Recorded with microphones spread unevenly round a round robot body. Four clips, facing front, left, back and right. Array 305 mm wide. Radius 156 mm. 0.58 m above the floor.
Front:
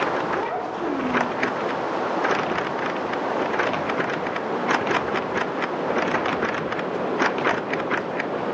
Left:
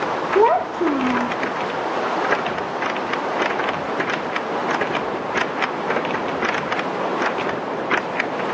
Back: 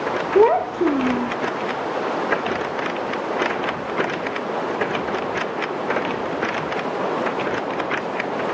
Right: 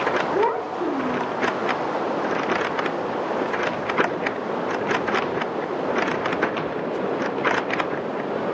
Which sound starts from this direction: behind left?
A child speaking, at 0.3 s.